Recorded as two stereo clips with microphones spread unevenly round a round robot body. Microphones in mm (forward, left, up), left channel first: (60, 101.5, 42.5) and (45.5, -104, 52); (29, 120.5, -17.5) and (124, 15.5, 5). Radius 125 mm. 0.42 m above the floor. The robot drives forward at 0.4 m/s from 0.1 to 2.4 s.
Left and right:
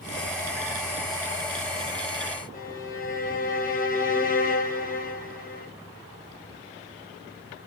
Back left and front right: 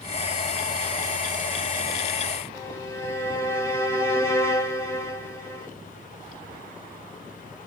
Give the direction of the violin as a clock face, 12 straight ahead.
9 o'clock.